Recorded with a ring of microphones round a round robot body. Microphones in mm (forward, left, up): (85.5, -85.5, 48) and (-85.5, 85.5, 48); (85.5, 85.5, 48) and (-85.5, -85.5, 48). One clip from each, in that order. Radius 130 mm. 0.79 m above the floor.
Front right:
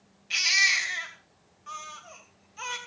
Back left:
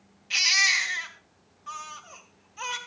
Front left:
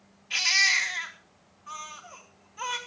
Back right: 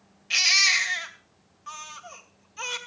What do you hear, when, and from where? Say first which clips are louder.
0.3 s a baby crying: back left 1 dB, back right 3 dB; 135° right, 2.5 m